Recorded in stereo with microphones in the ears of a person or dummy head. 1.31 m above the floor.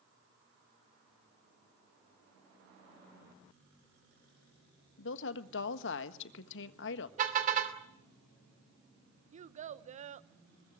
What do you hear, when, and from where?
5.0 s a woman speaking: 75° left (ahead or behind), 1.3 m
7.2 s a car horn: 40° right (ahead or behind), 2.5 m
9.3 s a child speaking: 45° right (ahead or behind), 0.7 m